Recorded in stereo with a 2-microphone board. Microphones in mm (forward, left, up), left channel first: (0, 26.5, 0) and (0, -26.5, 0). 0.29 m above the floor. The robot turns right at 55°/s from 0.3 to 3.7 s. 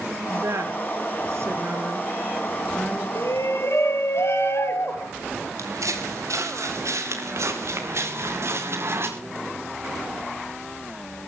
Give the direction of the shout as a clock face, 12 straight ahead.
9 o'clock.